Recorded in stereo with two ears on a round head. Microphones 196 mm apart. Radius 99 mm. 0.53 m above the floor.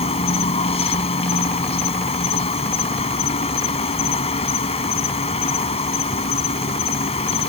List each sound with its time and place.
0.0 s an insect: 30° left (ahead or behind)